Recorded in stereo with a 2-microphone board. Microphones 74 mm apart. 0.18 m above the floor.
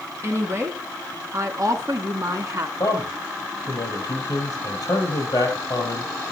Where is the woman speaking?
40° right (ahead or behind), 1.9 m; by 2.7 s 50° right (ahead or behind), 1.5 m.